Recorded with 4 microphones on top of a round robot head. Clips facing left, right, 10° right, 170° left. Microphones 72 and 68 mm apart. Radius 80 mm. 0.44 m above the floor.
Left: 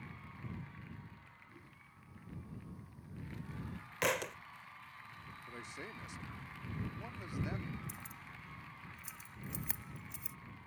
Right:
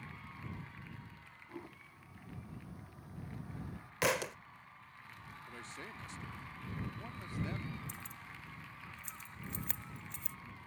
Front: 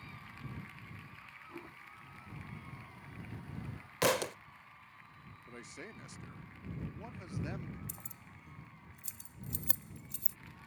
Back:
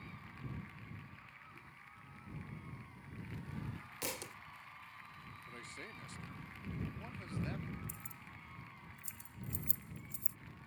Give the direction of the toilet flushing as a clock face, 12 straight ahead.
2 o'clock.